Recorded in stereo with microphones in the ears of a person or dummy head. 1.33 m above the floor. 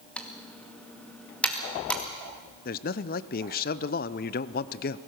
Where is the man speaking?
50° left (ahead or behind), 0.6 m.